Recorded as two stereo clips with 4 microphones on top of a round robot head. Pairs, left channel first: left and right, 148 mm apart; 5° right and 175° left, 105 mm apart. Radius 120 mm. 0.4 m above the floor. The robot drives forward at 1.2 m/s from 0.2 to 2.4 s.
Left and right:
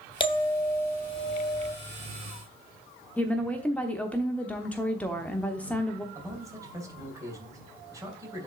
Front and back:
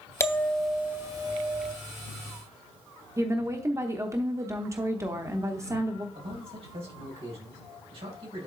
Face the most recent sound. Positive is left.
turn(degrees=-155)